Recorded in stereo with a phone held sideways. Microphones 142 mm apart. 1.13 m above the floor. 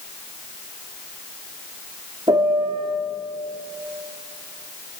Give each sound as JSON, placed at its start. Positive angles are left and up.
{"t": 2.3, "sound": "a piano", "side_deg": -35, "distance_m": 1.7}